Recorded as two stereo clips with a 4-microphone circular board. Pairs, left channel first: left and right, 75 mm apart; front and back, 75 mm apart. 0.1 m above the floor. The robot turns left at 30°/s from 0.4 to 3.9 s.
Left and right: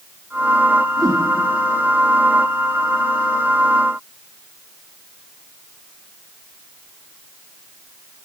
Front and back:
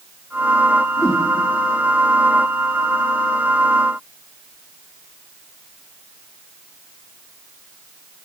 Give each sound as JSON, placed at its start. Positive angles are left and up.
{"t": 1.0, "sound": "a whoosh", "azimuth_deg": -55, "distance_m": 3.5}